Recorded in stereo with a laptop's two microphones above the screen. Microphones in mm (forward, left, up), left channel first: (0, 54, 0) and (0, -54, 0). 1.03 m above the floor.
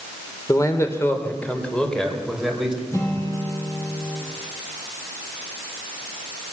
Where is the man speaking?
30° left (ahead or behind), 4 m; by 2.8 s 5° right (ahead or behind), 6 m.